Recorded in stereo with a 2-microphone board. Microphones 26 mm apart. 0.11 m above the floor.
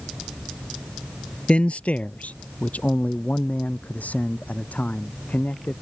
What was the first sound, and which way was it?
A man speaking, 45° left (ahead or behind).